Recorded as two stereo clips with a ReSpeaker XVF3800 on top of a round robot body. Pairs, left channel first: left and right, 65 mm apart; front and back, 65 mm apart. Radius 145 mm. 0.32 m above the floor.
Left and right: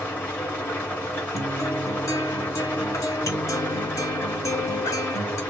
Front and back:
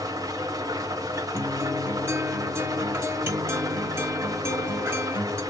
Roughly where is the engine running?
Behind left.